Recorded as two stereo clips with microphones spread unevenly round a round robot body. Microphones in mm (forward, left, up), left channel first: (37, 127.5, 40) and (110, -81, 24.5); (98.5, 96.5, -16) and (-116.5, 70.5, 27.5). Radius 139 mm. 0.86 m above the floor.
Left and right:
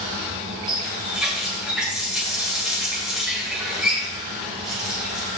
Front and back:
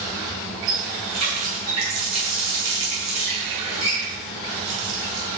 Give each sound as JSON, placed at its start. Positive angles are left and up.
{"t": 0.7, "sound": "a running tap", "azimuth_deg": -160, "distance_m": 7.0}